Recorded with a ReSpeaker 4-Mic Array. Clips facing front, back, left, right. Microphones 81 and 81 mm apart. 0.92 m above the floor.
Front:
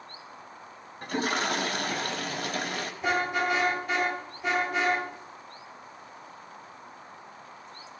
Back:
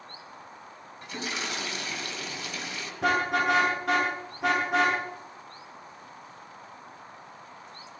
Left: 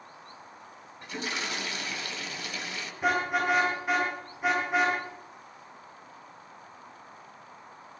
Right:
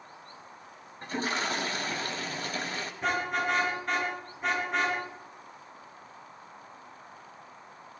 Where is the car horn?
175° left, 8.5 m.